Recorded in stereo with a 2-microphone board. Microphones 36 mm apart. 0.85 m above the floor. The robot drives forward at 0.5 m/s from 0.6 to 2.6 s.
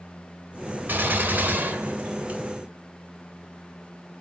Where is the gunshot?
75° right (ahead or behind), 1.4 m; by 2.4 s 65° right (ahead or behind), 1.5 m.